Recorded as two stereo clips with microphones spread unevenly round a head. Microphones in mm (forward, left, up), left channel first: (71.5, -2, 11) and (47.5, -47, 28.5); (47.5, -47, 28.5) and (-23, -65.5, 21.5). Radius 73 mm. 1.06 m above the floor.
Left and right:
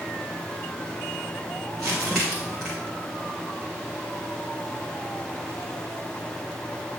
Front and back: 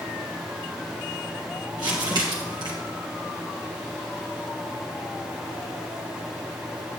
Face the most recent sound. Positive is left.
turn(degrees=150)